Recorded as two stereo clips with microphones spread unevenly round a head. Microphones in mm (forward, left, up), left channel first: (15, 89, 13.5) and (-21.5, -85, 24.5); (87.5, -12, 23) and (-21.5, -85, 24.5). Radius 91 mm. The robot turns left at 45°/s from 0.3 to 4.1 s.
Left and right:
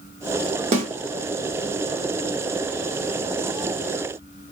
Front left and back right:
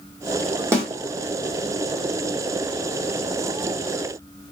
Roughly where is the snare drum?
Right.